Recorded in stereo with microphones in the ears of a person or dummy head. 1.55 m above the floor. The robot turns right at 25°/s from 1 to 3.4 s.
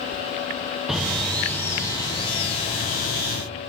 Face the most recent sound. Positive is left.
turn(degrees=55)